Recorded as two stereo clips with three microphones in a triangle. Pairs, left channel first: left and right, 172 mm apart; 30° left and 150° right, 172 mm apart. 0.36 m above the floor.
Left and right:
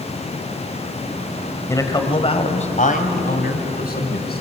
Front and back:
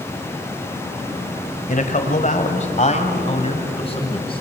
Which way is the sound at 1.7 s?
25° left.